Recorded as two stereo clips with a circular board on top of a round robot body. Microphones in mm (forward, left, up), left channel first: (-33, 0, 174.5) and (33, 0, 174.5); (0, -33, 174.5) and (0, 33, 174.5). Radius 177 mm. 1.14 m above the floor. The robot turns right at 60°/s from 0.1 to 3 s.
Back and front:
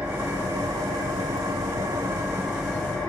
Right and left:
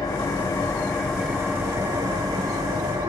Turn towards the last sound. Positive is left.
turn(degrees=105)